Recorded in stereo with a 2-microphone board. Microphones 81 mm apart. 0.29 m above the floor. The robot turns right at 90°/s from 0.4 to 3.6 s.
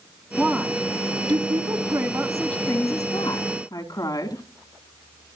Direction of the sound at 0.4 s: 170° right.